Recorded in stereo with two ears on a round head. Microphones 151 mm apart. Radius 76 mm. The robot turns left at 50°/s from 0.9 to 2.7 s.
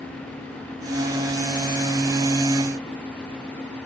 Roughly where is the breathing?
I don't hear breathing.